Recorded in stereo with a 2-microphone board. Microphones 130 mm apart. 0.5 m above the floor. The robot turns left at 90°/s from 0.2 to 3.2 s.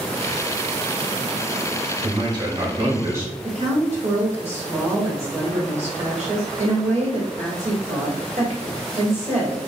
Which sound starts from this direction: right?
A woman speaking, at 3.4 s.